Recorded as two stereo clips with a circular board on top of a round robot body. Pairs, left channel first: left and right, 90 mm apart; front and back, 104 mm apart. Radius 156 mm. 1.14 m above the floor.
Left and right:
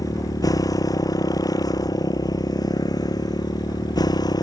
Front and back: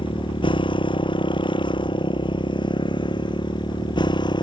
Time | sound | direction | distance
0.0 | a motorcycle | 40° left | ?